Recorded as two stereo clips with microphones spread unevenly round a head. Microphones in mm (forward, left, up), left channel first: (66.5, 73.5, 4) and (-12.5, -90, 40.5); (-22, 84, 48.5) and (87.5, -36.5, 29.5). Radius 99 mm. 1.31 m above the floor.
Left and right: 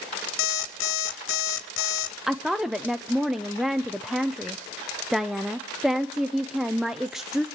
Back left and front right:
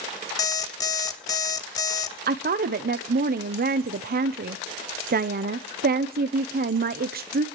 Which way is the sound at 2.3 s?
25° right.